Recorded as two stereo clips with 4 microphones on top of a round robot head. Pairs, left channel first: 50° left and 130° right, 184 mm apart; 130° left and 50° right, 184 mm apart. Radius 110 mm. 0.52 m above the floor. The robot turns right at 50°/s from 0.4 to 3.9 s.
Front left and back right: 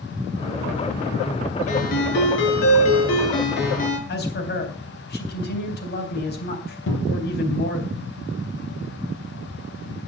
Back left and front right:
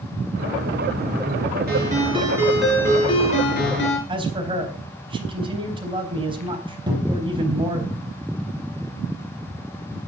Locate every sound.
1.7 s a ringtone: 5° right, 4 m; by 4.0 s 105° left, 4 m
4.1 s a man speaking: 15° left, 4 m
6.9 s a cupboard door: 20° left, 4.5 m